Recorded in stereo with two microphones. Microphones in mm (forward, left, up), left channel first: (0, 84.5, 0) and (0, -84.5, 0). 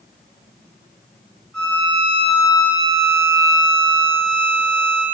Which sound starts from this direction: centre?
A violin, at 1.5 s.